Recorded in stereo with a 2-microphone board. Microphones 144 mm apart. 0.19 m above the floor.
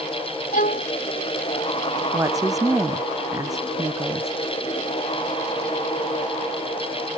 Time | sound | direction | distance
0.5 | a violin | 65° left (ahead or behind) | ?
2.1 | a woman speaking | 20° right (ahead or behind) | ?